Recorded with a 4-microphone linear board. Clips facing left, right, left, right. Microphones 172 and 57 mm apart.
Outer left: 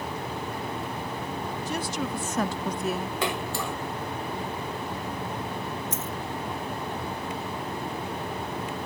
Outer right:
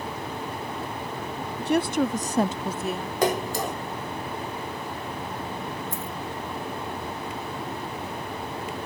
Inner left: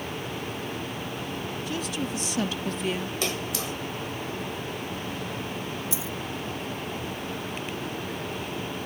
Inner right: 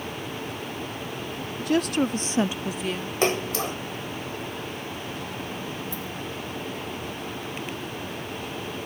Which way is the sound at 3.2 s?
40° right (ahead or behind).